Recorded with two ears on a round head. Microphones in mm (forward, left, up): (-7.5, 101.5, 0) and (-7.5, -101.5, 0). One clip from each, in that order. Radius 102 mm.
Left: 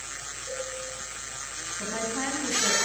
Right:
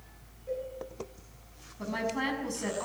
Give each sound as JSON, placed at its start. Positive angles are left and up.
{"t": 0.5, "sound": "a cowbell", "side_deg": 85, "distance_m": 9.0}
{"t": 1.8, "sound": "a woman speaking", "side_deg": -10, "distance_m": 6.5}